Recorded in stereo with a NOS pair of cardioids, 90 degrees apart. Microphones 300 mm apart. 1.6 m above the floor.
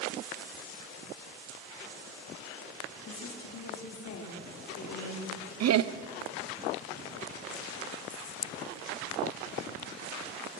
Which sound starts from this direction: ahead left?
A woman speaking, at 3.0 s.